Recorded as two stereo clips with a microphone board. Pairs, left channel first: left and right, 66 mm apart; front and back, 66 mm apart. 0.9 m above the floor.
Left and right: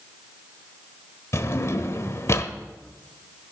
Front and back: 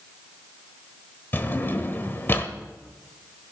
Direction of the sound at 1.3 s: 55° left.